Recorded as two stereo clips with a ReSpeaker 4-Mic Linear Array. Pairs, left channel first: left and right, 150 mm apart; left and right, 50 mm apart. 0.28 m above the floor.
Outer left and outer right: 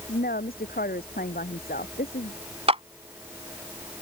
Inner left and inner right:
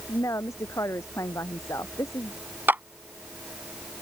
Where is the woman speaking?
85° left.